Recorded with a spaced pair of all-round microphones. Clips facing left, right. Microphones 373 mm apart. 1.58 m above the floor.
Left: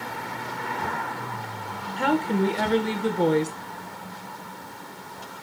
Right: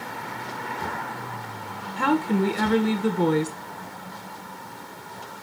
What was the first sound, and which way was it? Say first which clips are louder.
A woman speaking: right 1 dB; 15° right (ahead or behind).